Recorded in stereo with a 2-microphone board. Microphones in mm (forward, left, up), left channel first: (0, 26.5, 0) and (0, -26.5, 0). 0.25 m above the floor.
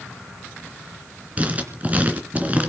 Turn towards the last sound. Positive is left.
turn(degrees=-30)  # may be behind; listen again after turning